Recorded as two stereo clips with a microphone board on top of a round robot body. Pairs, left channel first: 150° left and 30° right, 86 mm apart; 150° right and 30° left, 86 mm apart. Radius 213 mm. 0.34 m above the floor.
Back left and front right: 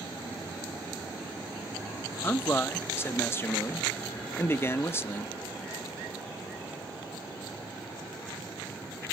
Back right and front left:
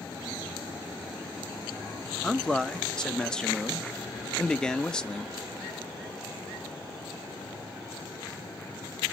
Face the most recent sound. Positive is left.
turn(degrees=135)